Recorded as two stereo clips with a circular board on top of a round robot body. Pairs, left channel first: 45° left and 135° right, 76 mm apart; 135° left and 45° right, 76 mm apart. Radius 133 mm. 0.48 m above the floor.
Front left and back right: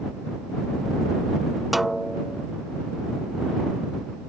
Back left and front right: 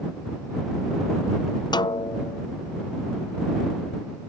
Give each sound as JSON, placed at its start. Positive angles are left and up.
{"t": 1.7, "sound": "a snare drum", "azimuth_deg": 135}